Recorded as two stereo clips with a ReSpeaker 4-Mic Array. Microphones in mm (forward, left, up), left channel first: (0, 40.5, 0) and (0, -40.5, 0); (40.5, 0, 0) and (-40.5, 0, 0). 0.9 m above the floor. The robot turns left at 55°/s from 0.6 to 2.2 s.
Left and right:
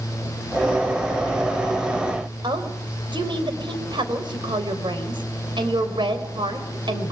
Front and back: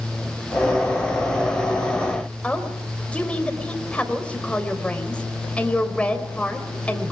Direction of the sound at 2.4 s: 75° right.